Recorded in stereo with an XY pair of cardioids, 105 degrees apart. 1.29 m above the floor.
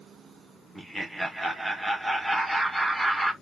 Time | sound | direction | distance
0.8 | laughter | 5° right | 1.4 m